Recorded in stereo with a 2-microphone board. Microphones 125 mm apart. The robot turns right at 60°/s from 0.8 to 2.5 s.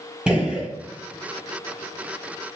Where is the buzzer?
No buzzer in this recording.